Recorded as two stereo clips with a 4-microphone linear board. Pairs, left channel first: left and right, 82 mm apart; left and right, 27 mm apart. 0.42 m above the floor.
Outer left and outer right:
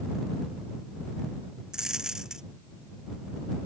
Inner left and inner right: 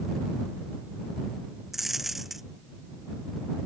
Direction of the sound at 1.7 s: 5° right (ahead or behind).